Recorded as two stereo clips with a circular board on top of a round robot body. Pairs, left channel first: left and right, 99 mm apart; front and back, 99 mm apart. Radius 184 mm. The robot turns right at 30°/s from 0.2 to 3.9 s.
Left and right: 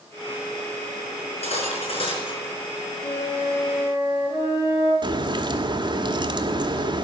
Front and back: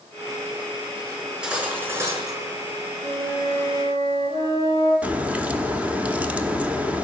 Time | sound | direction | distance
1.2 | cutlery clinking | 90° left | 4.5 m
3.0 | a flute | 170° left | 7 m
5.0 | a crack | 110° right | 1.8 m